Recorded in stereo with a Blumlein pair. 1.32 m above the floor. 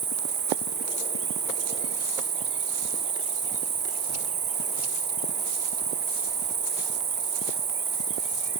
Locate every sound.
0.0 s an insect: 45° right, 1.0 m